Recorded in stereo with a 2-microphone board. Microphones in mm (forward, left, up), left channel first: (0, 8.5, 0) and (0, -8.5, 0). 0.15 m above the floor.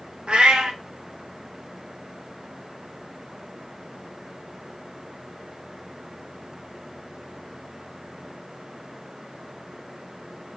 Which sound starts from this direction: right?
A cat meowing, at 0.3 s.